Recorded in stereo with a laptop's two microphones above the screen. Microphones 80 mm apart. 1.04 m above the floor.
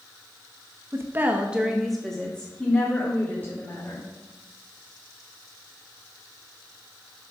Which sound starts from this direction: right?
A woman speaking, at 0.9 s.